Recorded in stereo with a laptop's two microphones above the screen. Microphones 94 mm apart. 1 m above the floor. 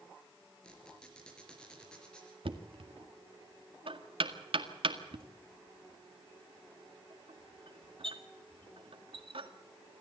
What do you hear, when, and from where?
0.6 s a squeak: 10° left (ahead or behind), 4 m
2.5 s knocking: 70° right (ahead or behind), 1.9 m